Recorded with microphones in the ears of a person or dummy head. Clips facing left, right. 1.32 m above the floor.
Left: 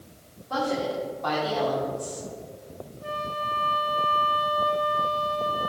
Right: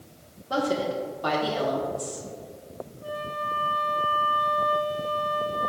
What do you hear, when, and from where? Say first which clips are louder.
0.5 s a woman speaking: right 1 dB; 35° right (ahead or behind), 1.4 m
3.0 s a flute: left 1 dB; 30° left (ahead or behind), 1.3 m